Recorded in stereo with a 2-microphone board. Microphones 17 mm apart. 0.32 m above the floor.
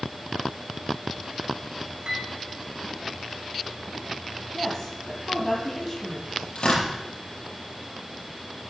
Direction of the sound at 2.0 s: 55° right (ahead or behind).